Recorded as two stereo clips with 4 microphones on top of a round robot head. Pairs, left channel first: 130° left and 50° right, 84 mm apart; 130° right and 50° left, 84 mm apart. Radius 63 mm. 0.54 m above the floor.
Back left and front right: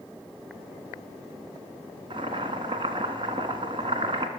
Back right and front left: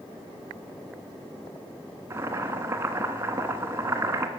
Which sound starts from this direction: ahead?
Boiling, at 2.1 s.